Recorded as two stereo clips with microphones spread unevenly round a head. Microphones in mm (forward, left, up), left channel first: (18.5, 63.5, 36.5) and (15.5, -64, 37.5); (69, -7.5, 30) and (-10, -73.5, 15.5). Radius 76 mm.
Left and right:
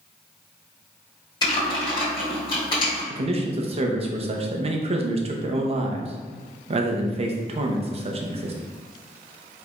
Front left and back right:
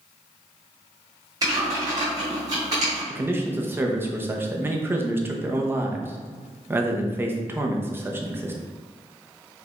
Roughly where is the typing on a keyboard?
Behind left.